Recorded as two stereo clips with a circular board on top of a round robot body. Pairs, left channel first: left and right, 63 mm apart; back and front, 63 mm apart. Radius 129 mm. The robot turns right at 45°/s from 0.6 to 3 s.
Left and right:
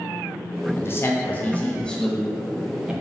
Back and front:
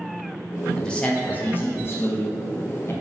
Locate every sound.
0.8 s a man speaking: 105° left, 0.6 m; by 2.9 s 155° right, 0.6 m